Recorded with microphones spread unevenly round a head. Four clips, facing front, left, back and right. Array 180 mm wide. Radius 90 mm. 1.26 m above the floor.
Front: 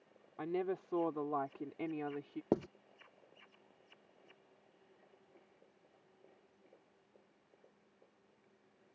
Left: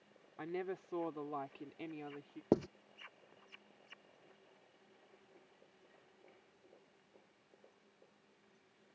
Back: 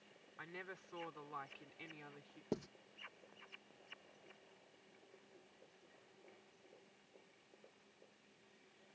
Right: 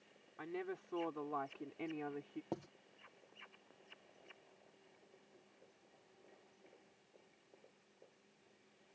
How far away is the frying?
I don't hear frying.